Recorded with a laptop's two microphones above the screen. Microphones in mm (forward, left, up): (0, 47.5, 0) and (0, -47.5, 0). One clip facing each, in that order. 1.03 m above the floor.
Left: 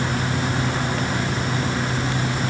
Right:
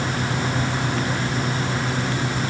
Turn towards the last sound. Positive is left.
No sound to turn to.